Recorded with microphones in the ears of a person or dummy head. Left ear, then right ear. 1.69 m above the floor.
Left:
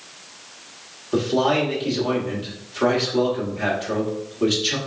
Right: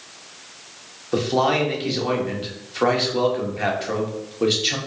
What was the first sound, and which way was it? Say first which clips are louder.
A man speaking: even; 15° right (ahead or behind).